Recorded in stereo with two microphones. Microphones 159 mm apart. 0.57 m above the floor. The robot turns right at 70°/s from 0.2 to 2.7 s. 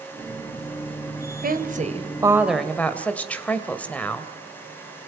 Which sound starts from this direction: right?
A woman speaking, at 1.4 s.